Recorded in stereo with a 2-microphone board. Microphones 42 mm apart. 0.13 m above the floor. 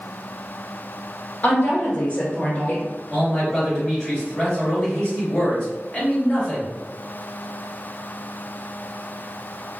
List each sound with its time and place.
1.4 s a woman speaking: 40° left (ahead or behind), 1.5 m
3.1 s a man speaking: 20° left (ahead or behind), 1.9 m